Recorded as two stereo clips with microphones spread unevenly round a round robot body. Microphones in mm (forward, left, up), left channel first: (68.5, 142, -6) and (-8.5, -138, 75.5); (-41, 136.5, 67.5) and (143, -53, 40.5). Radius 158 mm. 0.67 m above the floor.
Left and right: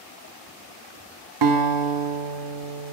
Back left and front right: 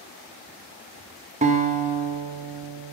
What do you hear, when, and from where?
1.4 s a guitar: 100° right, 1.0 m